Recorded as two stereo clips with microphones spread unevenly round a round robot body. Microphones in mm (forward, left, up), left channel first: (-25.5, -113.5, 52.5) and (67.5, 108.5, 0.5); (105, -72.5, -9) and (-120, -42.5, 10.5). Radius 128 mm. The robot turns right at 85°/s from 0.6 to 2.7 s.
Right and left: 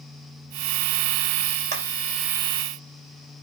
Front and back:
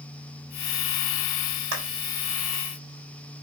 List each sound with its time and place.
1.7 s a clap: 125° left, 3 m; by 1.9 s 140° left, 3 m